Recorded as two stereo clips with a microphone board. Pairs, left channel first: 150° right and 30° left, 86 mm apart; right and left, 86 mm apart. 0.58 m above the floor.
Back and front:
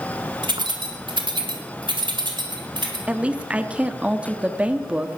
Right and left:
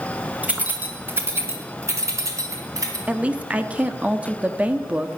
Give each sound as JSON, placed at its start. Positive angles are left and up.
{"t": 0.4, "sound": "keys jangling", "azimuth_deg": 15, "distance_m": 1.9}
{"t": 3.1, "sound": "a woman speaking", "azimuth_deg": 60, "distance_m": 0.7}